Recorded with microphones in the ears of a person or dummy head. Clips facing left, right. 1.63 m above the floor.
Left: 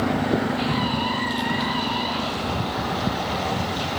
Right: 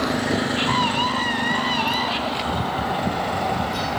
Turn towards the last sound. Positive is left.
turn(degrees=-85)